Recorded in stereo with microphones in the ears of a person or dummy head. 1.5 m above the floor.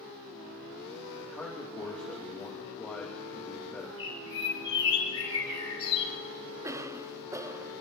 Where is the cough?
20° right (ahead or behind), 0.8 m.